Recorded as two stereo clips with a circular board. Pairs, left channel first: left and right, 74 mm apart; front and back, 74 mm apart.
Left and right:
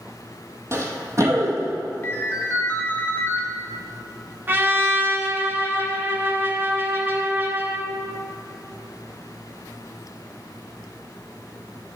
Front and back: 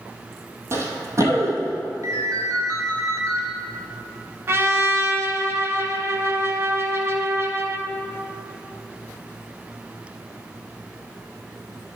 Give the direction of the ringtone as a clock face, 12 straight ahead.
7 o'clock.